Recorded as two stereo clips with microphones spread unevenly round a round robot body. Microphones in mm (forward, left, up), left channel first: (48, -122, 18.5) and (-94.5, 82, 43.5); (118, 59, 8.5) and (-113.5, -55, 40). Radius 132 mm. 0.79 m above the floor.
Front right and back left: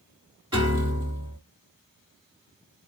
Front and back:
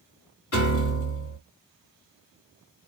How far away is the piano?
About 2.5 m.